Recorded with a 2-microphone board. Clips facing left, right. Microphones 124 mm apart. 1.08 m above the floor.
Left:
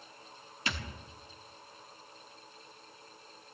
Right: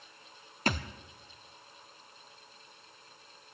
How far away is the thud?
About 0.7 m.